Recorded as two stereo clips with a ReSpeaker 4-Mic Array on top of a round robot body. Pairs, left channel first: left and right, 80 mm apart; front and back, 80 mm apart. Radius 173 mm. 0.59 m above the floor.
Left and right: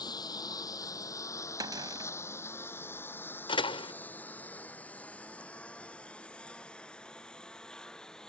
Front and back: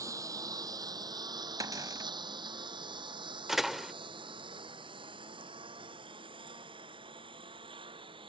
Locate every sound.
0.0 s a lawn mower: 130° left; by 8.3 s 170° left
1.6 s a cupboard door: 130° right
3.5 s a door slam: 95° left